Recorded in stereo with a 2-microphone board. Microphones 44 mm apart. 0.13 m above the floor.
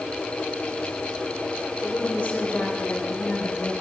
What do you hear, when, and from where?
1.8 s a woman speaking: 25° left (ahead or behind), 3.5 m; by 3.7 s 40° left (ahead or behind), 2.5 m